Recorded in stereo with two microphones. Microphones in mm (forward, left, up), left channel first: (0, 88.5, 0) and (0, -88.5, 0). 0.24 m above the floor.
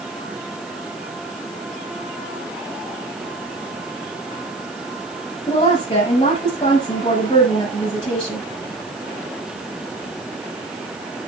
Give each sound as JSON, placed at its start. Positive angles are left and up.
{"t": 5.5, "sound": "a woman speaking", "side_deg": 30, "distance_m": 7.0}